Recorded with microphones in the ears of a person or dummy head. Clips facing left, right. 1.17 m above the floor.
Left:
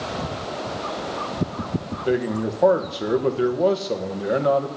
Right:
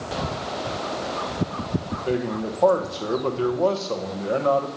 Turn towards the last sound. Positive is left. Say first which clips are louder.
# left 4 dB
turn(degrees=20)  # may be behind; listen again after turning